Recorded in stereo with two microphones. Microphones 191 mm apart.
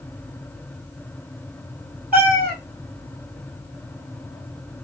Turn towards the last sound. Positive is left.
turn(degrees=-50)  # may be behind; listen again after turning